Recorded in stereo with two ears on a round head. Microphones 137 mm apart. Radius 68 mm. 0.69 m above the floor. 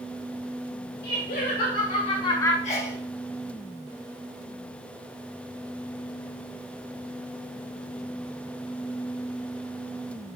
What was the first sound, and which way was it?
Laughter, 70° left (ahead or behind).